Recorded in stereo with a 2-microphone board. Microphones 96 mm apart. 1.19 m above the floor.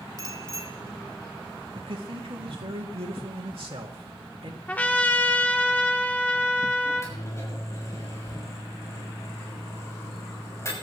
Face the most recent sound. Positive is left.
turn(degrees=30)  # may be behind; listen again after turning